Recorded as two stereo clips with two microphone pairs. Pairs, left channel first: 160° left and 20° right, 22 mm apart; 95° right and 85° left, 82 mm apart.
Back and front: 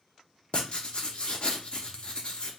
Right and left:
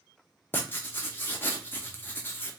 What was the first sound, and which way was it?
Writing, 160° right.